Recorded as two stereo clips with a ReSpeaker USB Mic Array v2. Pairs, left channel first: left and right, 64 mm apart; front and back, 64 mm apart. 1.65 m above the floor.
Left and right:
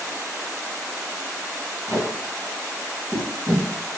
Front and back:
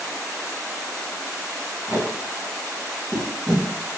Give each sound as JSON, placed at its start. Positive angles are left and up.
{"t": 1.9, "sound": "tape being pulled", "azimuth_deg": -125, "distance_m": 4.0}